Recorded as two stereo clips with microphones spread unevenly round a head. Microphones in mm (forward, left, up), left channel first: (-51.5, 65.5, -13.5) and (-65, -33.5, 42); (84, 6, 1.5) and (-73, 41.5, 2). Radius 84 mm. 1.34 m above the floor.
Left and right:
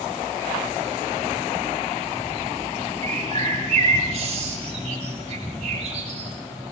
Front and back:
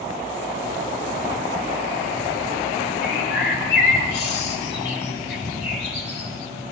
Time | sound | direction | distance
3.0 | a bird | 45° right | 7.5 m